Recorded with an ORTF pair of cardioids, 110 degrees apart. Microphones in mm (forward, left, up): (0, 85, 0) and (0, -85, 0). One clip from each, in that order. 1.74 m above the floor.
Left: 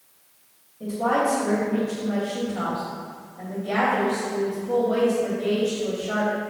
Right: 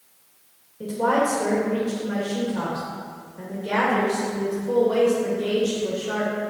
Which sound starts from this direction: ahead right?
A woman speaking, at 0.8 s.